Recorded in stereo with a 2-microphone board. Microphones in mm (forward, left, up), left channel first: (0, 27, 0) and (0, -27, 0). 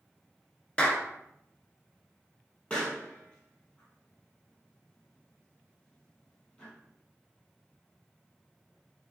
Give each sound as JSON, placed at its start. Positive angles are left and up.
{"t": 0.8, "sound": "a clap", "side_deg": 20, "distance_m": 0.9}
{"t": 2.7, "sound": "a pop", "side_deg": 15, "distance_m": 2.0}